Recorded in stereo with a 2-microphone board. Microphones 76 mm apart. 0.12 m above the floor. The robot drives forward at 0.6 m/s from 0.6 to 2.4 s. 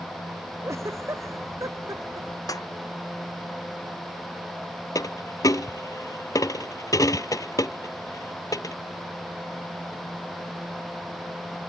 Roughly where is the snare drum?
Left.